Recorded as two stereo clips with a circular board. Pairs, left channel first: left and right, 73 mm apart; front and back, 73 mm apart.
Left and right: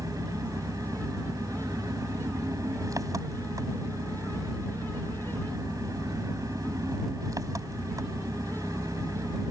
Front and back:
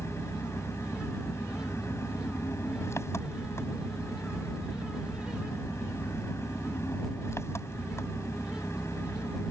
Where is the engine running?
50° right.